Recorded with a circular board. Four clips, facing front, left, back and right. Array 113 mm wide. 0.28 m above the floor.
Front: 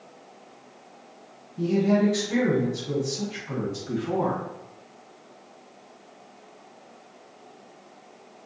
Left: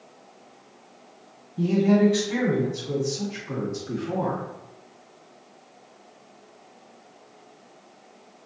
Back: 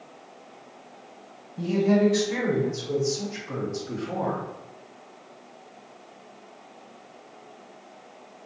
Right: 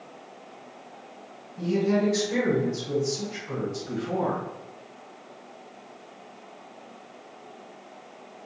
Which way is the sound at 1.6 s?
100° left.